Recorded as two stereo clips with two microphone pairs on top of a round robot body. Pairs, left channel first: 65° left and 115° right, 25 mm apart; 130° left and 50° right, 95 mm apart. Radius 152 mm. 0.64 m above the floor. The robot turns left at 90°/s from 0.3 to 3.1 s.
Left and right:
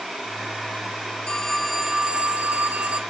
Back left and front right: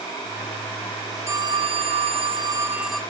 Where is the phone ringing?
10° left, 1.9 m; by 3.0 s 145° right, 1.9 m.